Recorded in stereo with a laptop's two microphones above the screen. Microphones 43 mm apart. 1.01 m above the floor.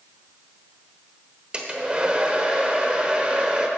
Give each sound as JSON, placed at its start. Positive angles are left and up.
{"t": 1.5, "sound": "a hair dryer", "side_deg": -25, "distance_m": 1.1}